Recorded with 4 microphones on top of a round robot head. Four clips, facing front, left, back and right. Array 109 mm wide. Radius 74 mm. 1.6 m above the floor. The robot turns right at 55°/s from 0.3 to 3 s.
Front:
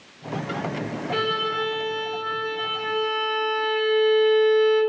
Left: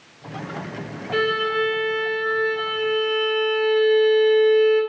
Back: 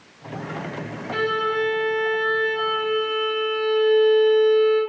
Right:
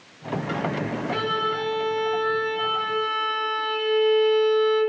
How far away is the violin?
About 1.5 m.